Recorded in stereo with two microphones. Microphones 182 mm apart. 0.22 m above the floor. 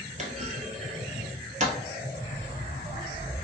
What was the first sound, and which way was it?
A clunk, 45° right (ahead or behind).